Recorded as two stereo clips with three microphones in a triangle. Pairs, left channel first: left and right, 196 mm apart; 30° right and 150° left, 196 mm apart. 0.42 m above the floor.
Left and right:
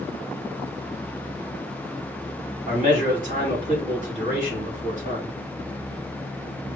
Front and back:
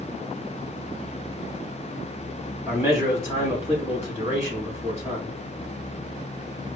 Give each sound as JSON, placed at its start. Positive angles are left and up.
{"t": 2.7, "sound": "a man speaking", "azimuth_deg": -135, "distance_m": 3.5}